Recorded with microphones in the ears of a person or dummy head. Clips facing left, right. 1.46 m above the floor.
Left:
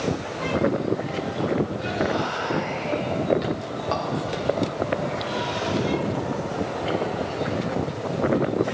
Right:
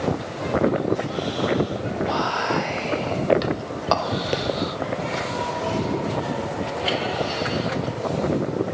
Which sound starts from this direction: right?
Whispering, at 2.1 s.